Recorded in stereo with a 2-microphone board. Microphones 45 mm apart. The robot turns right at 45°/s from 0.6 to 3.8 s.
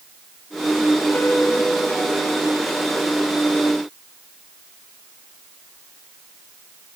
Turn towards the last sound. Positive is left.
turn(degrees=-105)